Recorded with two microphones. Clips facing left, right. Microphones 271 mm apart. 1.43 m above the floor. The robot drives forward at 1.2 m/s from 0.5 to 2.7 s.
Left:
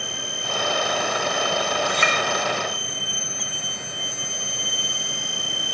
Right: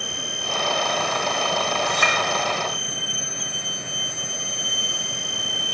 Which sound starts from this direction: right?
A clink, at 1.8 s.